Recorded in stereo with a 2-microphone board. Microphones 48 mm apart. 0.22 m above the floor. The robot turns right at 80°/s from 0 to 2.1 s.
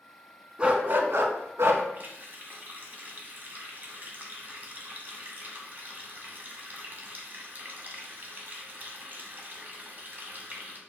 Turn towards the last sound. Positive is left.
turn(degrees=-40)  # may be behind; listen again after turning